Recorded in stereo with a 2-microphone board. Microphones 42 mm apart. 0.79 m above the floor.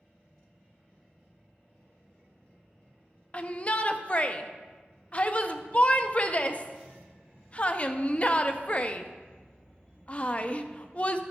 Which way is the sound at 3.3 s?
30° left (ahead or behind).